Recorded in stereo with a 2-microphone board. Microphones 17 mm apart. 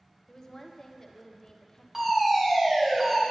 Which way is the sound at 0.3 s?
30° left (ahead or behind).